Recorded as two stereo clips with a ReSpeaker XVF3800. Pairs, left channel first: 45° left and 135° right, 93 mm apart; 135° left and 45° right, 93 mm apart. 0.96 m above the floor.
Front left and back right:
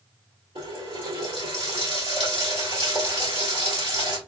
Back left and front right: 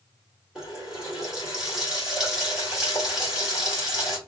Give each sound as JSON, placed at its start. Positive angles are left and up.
{"t": 0.6, "sound": "a running tap", "azimuth_deg": -130, "distance_m": 2.0}